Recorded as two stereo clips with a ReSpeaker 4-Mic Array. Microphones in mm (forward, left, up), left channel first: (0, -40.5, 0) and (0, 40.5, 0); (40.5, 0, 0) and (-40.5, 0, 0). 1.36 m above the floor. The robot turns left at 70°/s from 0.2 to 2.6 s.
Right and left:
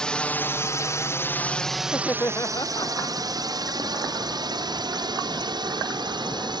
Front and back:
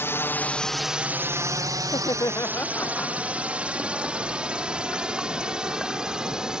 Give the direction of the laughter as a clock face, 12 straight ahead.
12 o'clock.